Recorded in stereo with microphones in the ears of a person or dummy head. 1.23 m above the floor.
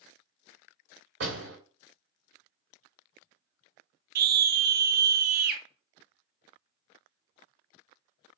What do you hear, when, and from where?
1.2 s a door slam: 55° right (ahead or behind), 3.5 m
4.2 s a scream: 60° right (ahead or behind), 1.8 m